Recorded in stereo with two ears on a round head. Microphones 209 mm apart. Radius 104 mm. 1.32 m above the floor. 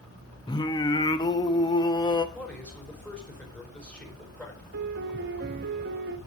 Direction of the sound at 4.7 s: 45° right (ahead or behind).